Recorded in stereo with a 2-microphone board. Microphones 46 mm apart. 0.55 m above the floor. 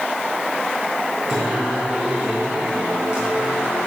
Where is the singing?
15° right (ahead or behind), 7.5 m.